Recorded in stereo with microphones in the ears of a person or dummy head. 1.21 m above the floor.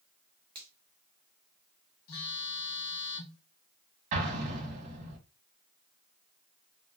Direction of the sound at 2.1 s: 75° left (ahead or behind).